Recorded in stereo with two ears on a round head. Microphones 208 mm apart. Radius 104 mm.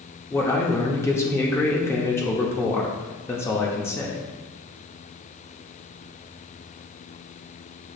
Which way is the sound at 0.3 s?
10° left (ahead or behind).